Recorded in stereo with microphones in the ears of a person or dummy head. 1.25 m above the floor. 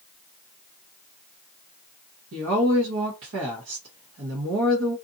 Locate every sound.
2.3 s a woman speaking: 60° right (ahead or behind), 0.9 m